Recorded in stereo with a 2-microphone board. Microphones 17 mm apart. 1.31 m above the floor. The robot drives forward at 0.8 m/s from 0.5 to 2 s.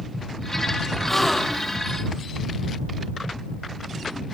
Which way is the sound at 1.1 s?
20° left (ahead or behind).